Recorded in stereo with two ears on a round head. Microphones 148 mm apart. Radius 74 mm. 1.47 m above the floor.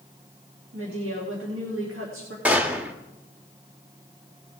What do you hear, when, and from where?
0.7 s a woman speaking: 85° right, 2.5 m
2.5 s a gunshot: 10° right (ahead or behind), 1.0 m